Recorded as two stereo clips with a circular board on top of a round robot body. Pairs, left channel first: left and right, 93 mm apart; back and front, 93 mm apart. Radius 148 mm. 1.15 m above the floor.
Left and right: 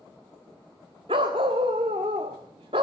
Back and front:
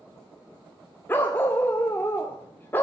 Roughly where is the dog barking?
Behind right.